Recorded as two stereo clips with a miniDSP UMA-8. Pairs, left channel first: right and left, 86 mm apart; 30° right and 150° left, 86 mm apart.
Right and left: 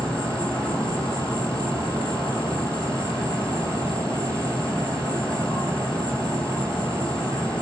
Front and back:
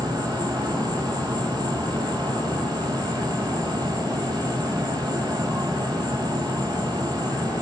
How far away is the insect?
About 4.5 m.